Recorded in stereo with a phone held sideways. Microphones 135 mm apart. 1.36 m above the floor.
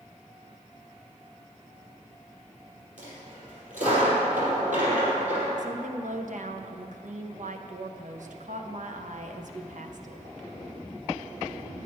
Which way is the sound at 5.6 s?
70° right (ahead or behind).